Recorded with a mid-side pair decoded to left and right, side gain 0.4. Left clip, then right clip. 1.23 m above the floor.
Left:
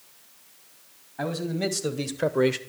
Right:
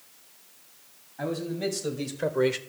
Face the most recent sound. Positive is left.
turn(degrees=0)